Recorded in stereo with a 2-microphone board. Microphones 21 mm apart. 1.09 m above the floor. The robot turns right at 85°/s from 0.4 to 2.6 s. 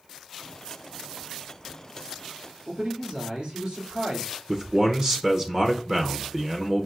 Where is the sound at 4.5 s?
35° right (ahead or behind), 0.6 m.